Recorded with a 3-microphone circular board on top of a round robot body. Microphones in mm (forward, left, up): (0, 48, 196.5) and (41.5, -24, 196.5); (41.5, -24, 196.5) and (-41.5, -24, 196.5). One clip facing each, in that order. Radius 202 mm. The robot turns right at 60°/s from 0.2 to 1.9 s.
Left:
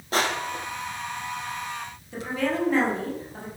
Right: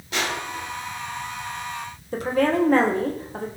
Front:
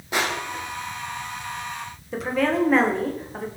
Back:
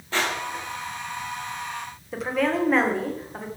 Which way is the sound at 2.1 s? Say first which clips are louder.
Right 6 dB, front 2 dB; 90° right.